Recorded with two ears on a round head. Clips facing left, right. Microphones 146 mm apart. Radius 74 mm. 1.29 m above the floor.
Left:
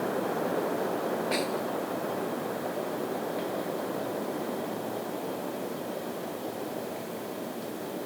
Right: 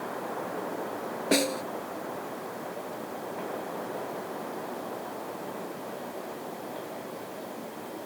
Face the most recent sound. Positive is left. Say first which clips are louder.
# right 3 dB
turn(degrees=-60)  # may be behind; listen again after turning